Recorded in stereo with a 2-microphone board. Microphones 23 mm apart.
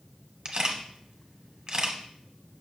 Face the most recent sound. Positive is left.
turn(degrees=-30)  # may be behind; listen again after turning